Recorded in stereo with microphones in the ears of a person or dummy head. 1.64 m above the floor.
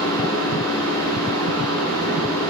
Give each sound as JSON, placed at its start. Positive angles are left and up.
{"t": 0.0, "sound": "a fan", "side_deg": 15, "distance_m": 6.5}